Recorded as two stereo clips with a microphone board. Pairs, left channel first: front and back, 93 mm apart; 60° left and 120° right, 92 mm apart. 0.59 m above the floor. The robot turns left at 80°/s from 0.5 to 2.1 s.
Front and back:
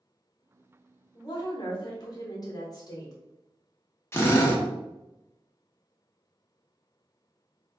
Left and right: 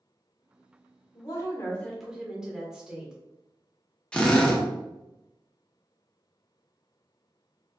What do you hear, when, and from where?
1.1 s a woman speaking: 40° left, 1.5 m; by 3.1 s 40° right, 1.5 m
4.1 s a drill: 5° right, 1.0 m